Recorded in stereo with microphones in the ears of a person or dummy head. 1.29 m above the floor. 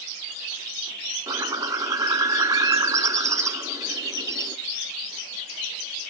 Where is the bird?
15° right (ahead or behind), 0.5 m.